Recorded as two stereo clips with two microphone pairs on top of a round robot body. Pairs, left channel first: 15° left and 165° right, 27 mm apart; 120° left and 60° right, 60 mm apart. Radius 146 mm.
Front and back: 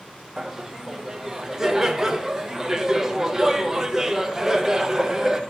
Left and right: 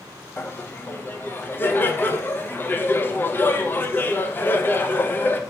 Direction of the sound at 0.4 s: 170° left.